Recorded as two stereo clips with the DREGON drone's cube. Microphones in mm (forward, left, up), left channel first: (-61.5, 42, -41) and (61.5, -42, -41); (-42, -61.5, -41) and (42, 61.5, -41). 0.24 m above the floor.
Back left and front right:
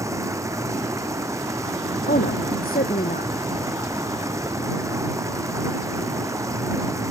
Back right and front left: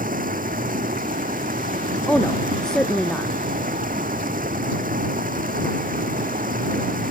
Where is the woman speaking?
150° left.